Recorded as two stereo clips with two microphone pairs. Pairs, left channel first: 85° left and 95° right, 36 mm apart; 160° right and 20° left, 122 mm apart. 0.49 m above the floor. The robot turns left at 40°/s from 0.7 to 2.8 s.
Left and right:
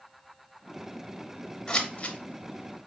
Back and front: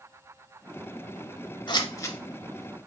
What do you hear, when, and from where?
1.7 s scissors: 150° left, 0.5 m; by 2.9 s 105° left, 0.5 m